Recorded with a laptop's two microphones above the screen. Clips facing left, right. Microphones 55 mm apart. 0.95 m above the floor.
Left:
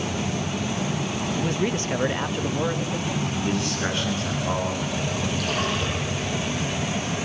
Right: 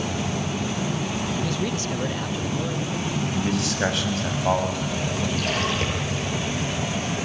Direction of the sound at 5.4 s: 80° right.